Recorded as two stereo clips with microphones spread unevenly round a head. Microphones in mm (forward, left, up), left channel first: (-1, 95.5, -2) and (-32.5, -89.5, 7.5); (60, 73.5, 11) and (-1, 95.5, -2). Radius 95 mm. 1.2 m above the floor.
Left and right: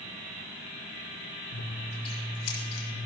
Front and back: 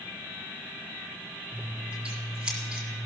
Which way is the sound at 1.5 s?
80° left.